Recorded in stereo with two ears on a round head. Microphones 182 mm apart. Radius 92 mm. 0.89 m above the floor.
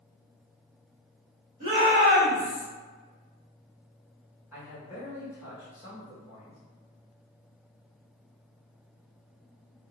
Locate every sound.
1.6 s a shout: 35° right (ahead or behind), 1.7 m; by 2.6 s 65° right (ahead or behind), 1.7 m
4.5 s a man speaking: 10° right (ahead or behind), 1.3 m